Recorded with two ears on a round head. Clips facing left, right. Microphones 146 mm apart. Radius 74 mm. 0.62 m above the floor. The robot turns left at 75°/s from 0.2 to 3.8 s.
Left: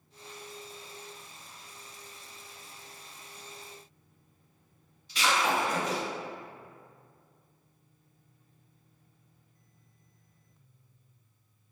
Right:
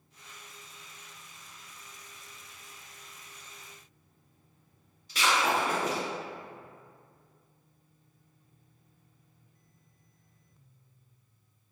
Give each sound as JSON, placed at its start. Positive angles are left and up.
{"t": 5.1, "sound": "breaking glass", "side_deg": -45, "distance_m": 1.3}